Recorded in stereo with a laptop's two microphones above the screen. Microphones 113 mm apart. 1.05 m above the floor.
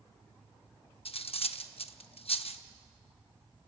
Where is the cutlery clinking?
60° left (ahead or behind), 0.7 m.